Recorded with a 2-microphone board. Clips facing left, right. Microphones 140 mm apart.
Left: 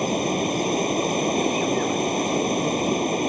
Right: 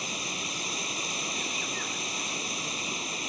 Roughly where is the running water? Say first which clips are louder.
Left 16 dB; left.